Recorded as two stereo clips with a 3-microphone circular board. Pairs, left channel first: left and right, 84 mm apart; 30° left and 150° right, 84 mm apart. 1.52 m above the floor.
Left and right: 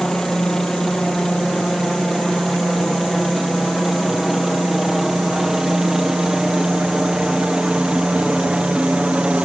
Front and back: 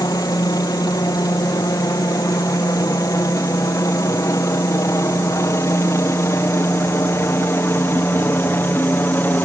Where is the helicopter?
5° left; by 9.4 s 20° right.